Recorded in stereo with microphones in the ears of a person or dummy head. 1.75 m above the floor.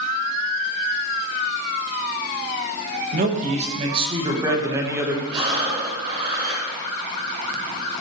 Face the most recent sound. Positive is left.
turn(degrees=-40)  # may be behind; listen again after turning